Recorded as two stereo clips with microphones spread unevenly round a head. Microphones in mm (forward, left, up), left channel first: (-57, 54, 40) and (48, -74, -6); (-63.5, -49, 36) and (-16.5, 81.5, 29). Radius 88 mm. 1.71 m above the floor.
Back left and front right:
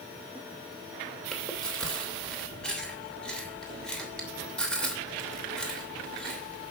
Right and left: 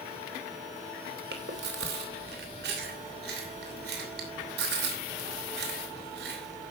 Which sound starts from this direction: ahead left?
Chewing, at 1.3 s.